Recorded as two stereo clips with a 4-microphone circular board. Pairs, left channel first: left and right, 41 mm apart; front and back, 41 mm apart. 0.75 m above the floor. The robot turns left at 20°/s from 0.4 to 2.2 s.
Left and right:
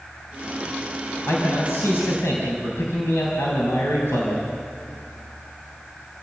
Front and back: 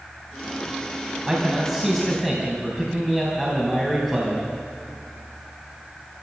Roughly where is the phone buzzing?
I don't hear a phone buzzing.